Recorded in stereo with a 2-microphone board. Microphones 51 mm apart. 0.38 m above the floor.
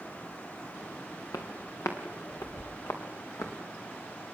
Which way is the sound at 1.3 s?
85° left.